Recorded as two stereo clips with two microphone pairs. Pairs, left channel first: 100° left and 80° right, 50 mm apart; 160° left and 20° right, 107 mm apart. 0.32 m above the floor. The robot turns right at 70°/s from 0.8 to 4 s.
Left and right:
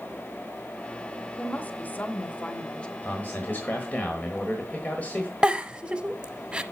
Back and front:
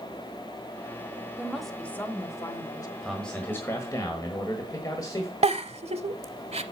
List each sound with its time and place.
1.4 s a woman speaking: 55° left, 1.0 m; by 2.9 s 165° left, 1.0 m
3.0 s a man speaking: 70° left, 1.4 m; by 5.3 s 135° left, 1.4 m
5.4 s a giggle: 5° right, 0.6 m